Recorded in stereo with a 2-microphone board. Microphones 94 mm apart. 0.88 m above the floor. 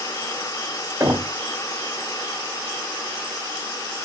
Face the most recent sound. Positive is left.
turn(degrees=-25)  # may be behind; listen again after turning